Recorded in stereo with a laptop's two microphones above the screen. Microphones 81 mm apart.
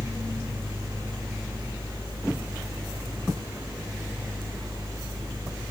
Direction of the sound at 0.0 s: 50° right (ahead or behind).